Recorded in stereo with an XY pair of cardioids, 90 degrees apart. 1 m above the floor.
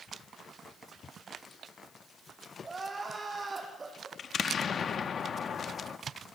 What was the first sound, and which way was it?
Crying, 30° right.